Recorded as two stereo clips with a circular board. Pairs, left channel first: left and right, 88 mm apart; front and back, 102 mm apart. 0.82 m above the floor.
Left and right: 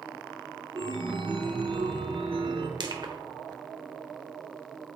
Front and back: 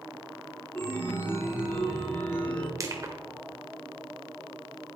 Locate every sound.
0.8 s a chime: 70° right, 1.3 m
2.8 s crushing: 120° right, 1.2 m